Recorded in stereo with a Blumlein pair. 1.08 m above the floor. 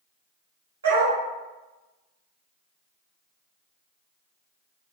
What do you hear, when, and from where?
0.8 s a dog barking: 70° right, 1.7 m